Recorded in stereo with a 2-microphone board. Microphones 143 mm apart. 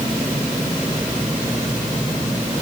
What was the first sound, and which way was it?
Only background noise.